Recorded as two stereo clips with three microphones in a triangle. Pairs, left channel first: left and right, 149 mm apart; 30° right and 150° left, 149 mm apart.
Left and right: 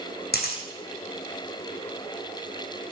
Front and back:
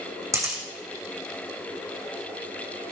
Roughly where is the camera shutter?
Left.